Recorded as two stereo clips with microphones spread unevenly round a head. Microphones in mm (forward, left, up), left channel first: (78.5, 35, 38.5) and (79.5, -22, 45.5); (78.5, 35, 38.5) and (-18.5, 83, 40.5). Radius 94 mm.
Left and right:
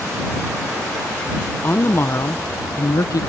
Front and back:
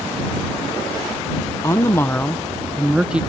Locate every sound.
1.6 s a woman speaking: 35° left; by 3.2 s 75° left